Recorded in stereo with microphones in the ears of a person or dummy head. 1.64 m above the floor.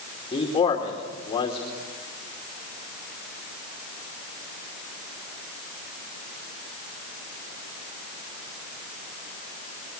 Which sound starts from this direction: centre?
A man speaking, at 0.3 s.